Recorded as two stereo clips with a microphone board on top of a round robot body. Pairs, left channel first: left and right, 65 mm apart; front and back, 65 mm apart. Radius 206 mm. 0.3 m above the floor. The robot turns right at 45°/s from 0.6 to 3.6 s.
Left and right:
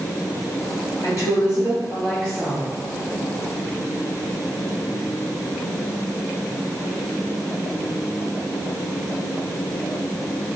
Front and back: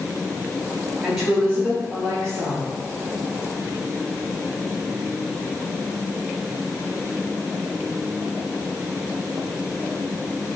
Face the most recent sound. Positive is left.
turn(degrees=-150)